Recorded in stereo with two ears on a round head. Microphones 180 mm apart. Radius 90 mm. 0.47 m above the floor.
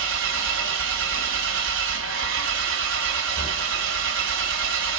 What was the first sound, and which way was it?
An engine running, 65° right (ahead or behind).